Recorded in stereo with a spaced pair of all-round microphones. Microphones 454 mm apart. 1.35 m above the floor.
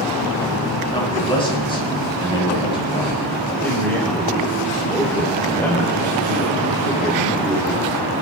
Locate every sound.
0.9 s a man speaking: 10° left (ahead or behind), 9.5 m
3.6 s a man speaking: 5° left (ahead or behind), 4.5 m